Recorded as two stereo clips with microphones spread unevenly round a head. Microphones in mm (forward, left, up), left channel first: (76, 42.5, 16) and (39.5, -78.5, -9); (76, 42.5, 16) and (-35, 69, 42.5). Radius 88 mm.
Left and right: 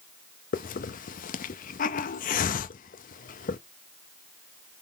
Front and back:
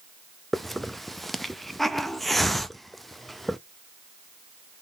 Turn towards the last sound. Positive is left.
turn(degrees=80)